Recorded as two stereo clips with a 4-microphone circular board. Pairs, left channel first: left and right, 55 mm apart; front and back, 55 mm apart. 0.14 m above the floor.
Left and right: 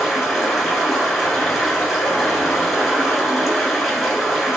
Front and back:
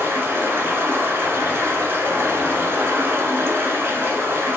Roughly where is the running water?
Behind.